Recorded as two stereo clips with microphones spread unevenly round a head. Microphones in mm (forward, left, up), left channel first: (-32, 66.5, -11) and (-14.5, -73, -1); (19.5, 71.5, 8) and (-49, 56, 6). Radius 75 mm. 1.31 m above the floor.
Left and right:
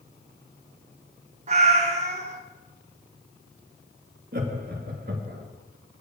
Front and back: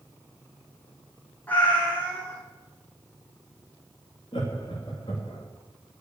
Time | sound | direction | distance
1.5 | a cat meowing | 60° right | 1.9 m
4.3 | laughter | 45° right | 2 m